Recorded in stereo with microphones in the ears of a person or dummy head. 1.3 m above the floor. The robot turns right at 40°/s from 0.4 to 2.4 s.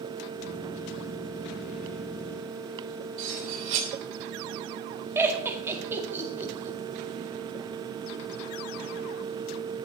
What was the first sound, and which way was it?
Cutlery clinking, 45° right (ahead or behind).